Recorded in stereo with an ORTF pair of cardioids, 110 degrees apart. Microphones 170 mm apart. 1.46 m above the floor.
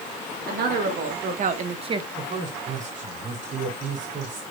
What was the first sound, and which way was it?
A woman speaking, 65° right.